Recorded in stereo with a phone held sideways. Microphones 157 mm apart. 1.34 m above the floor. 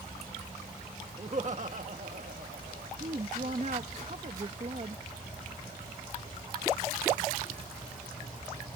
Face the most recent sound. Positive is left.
turn(degrees=-50)  # may be behind; listen again after turning